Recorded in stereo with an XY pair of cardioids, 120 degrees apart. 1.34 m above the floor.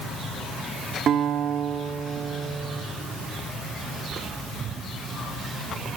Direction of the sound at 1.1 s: 55° right.